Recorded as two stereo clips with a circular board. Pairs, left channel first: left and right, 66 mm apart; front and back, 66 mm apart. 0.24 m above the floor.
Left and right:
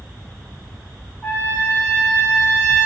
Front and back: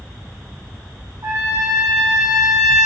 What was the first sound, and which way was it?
A trumpet, 160° left.